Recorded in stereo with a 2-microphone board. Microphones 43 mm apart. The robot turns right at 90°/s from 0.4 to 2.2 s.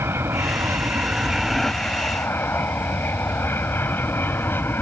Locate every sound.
0.0 s an aircraft: 105° right; by 4.8 s 60° left